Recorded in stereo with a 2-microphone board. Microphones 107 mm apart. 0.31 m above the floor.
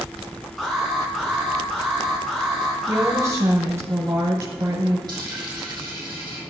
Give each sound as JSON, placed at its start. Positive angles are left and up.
{"t": 0.6, "sound": "an alarm", "side_deg": 0, "distance_m": 4.0}
{"t": 2.9, "sound": "a woman speaking", "side_deg": -30, "distance_m": 1.8}
{"t": 5.1, "sound": "a dropped coin", "side_deg": -40, "distance_m": 4.5}